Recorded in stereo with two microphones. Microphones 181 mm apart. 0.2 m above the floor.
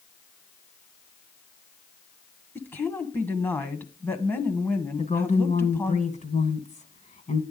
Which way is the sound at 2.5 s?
10° left (ahead or behind).